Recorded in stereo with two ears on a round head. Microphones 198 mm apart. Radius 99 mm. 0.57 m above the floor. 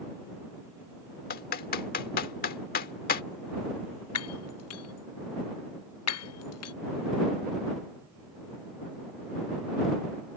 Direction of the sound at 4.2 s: 80° left.